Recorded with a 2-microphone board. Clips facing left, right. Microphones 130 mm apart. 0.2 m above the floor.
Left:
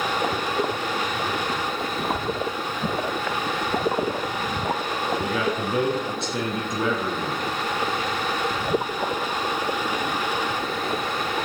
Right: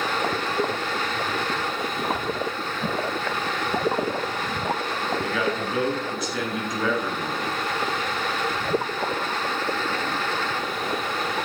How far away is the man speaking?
About 2.5 m.